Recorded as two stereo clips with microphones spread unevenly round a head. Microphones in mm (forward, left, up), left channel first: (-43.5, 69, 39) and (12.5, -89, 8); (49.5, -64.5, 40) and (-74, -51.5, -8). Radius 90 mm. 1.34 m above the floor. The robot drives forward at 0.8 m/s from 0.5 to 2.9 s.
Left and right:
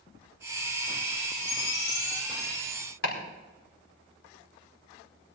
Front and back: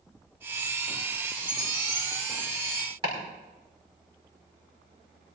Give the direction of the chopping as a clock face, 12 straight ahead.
8 o'clock.